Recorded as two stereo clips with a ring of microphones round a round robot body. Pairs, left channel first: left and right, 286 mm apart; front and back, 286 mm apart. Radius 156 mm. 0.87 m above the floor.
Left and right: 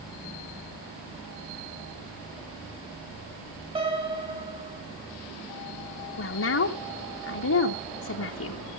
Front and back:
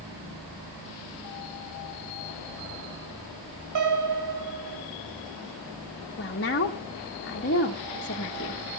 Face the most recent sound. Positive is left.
turn(degrees=55)